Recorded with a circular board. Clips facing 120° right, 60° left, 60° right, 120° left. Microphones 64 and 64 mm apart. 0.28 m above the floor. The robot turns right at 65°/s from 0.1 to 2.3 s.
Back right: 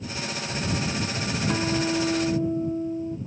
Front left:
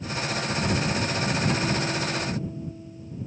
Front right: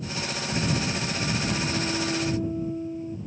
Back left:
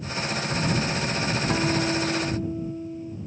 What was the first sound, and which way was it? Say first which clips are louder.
A guitar: back right 1 dB, back left 4 dB; 165° left.